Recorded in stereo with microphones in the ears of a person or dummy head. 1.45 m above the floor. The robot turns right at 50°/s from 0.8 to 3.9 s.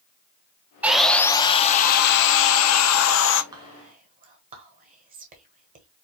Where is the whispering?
30° right (ahead or behind), 1.4 m; by 5.9 s 50° right (ahead or behind), 1.4 m.